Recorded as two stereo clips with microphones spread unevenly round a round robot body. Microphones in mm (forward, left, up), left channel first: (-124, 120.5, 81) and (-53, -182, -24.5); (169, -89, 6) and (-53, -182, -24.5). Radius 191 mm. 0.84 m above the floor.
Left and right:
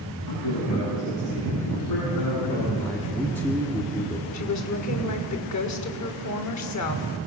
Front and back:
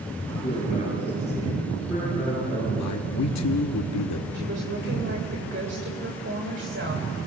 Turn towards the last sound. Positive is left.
turn(degrees=140)